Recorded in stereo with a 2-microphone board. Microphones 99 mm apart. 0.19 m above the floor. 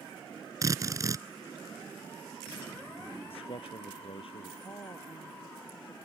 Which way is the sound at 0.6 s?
35° right (ahead or behind).